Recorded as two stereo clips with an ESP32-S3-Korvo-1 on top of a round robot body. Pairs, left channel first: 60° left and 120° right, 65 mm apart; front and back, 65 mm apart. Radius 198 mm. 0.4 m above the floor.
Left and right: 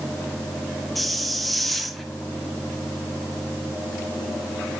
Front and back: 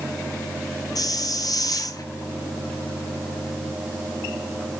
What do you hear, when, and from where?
0.9 s a hiss: 30° right, 1.3 m